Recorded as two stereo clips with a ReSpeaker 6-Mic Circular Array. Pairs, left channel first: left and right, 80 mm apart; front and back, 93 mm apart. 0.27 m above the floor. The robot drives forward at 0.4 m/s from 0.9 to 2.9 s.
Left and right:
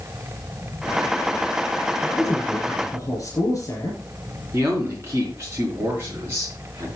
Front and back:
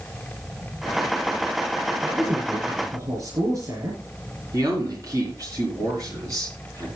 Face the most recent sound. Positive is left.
turn(degrees=-140)